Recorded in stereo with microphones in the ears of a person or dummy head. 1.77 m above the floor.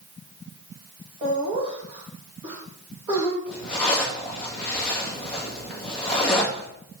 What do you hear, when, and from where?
1.2 s laughter: 35° right (ahead or behind), 3.5 m; by 3.4 s 25° right (ahead or behind), 1.9 m
3.5 s a zipper: 5° left (ahead or behind), 2 m